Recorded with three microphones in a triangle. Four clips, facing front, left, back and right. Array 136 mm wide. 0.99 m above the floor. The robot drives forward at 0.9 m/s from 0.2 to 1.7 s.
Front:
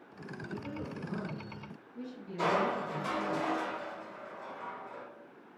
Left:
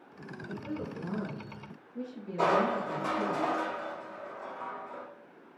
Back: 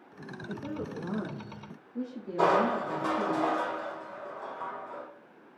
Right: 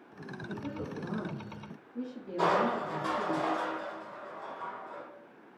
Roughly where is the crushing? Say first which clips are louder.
Left 1 dB, back 5 dB; behind.